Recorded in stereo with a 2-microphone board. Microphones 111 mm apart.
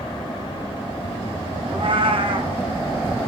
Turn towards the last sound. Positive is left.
turn(degrees=-55)  # may be behind; listen again after turning